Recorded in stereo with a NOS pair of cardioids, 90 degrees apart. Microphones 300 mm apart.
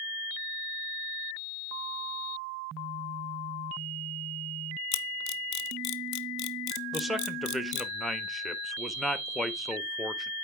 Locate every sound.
4.9 s a camera shutter: 65° left, 0.7 m
6.9 s a man speaking: straight ahead, 1.3 m